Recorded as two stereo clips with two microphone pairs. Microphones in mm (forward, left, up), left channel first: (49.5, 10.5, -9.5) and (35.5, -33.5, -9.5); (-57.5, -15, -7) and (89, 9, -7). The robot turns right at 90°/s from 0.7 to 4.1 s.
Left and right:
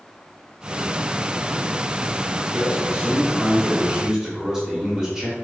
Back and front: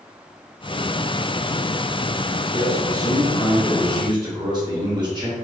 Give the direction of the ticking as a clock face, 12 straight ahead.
No ticking in this recording.